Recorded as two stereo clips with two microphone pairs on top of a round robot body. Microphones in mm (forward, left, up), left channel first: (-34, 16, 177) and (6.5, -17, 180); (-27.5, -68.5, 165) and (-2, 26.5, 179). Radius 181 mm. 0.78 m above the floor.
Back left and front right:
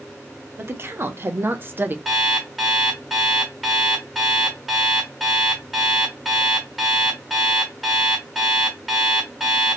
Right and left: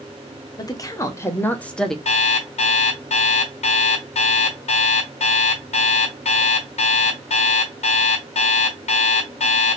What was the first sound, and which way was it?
A woman speaking, 75° right.